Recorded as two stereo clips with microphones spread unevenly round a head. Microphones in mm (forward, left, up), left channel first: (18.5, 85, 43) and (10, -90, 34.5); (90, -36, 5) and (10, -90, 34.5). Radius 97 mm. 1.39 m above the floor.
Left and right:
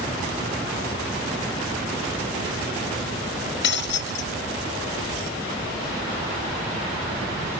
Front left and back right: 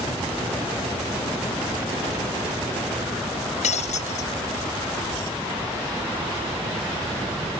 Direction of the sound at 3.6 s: 65° left.